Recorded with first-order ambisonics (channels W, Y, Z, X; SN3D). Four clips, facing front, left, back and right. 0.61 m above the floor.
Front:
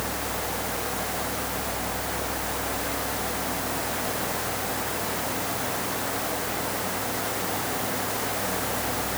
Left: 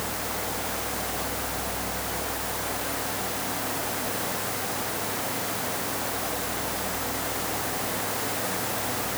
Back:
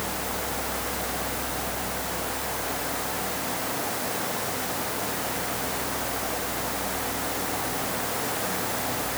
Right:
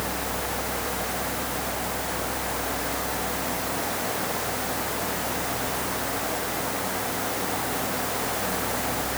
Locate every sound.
Only background noise.